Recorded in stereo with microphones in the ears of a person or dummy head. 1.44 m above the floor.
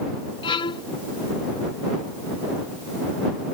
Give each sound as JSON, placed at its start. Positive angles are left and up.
{"t": 0.4, "sound": "a violin", "side_deg": 30}